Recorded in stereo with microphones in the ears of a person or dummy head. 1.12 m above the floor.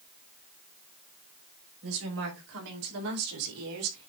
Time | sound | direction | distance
1.8 | a woman speaking | 85° right | 5 m